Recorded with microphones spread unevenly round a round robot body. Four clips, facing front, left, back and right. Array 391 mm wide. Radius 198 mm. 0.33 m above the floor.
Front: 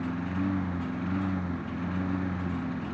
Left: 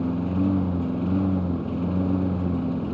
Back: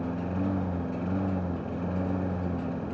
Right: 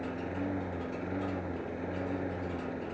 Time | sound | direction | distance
0.0 | a lawn mower | 105° left | ?